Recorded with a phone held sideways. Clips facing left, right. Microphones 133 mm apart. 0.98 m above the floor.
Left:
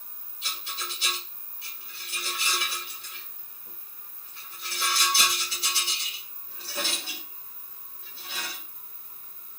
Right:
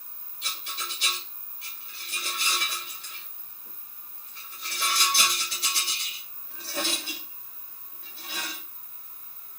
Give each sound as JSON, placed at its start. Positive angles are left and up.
{"t": 0.4, "sound": "a rattle", "side_deg": -70, "distance_m": 2.0}